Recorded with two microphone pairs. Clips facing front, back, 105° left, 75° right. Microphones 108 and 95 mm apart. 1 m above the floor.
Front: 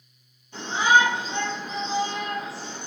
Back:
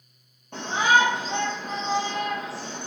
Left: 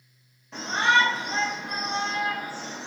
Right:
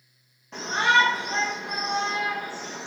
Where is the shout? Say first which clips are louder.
Front 1 dB, right 1 dB; 155° right, 2 m.